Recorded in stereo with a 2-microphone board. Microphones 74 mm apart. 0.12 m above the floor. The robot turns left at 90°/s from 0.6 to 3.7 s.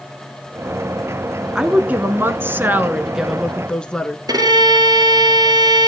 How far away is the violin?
About 1.6 m.